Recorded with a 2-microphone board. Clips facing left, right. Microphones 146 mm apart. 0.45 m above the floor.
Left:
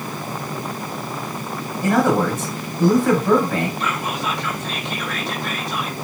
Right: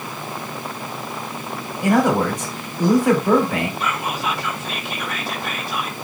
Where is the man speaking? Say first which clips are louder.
Even; 10° right (ahead or behind), 2.5 m.